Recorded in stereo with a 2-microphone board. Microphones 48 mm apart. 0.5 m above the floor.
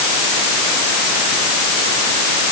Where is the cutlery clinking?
No cutlery clinking in this recording.